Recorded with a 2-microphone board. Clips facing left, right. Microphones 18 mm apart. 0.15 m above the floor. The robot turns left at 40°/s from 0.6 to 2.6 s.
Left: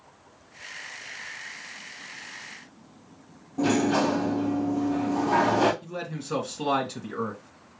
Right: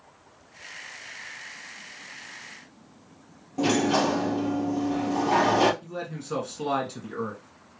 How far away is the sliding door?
About 2.5 m.